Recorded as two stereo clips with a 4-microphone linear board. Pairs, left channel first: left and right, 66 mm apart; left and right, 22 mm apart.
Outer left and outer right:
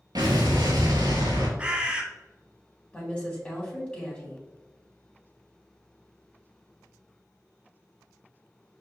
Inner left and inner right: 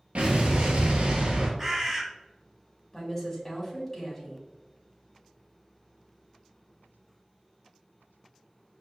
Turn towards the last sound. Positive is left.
turn(degrees=15)  # may be behind; listen again after turning